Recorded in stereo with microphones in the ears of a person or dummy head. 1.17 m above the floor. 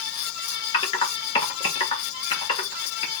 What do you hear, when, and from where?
0.7 s typing on a keyboard: 25° left (ahead or behind), 1.3 m